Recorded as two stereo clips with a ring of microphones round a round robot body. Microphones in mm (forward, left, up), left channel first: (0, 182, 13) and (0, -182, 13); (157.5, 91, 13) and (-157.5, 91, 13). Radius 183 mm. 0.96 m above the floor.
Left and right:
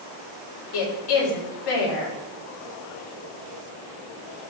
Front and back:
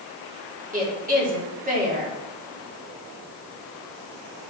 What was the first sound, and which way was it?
A woman speaking, 115° left.